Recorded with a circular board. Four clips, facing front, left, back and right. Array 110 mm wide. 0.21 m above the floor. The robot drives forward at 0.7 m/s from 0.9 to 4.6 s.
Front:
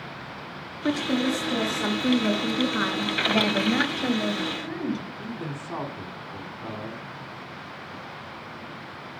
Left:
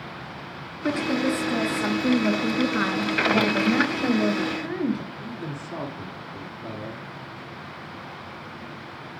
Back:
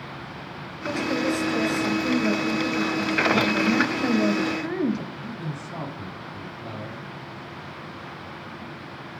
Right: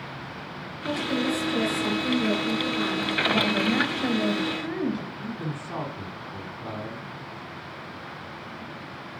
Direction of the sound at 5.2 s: 30° right.